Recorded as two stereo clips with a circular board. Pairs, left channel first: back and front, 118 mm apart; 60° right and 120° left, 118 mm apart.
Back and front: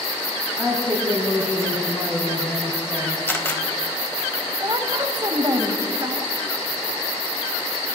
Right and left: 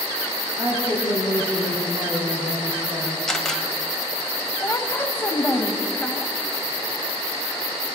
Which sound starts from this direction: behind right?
A camera shutter, at 3.3 s.